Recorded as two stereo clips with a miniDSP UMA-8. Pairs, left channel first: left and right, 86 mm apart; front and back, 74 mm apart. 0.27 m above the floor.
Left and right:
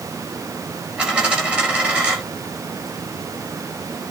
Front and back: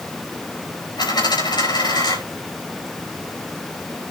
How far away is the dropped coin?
About 7.5 m.